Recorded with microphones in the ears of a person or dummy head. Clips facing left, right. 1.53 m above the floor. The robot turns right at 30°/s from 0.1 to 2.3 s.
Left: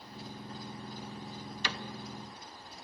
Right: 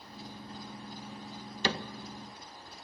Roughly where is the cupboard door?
Right.